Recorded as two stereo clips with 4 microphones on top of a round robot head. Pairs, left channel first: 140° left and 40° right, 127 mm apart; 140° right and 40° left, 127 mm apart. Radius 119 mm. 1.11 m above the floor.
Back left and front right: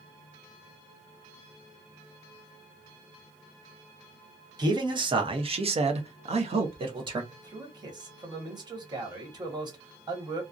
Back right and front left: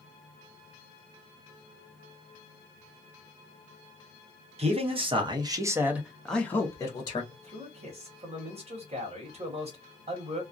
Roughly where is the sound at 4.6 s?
Ahead.